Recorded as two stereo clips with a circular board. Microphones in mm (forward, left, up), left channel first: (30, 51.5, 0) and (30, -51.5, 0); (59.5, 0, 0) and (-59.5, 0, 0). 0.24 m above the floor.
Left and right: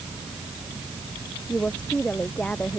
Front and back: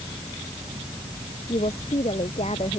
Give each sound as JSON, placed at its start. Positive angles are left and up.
{"t": 1.5, "sound": "a woman speaking", "azimuth_deg": 15}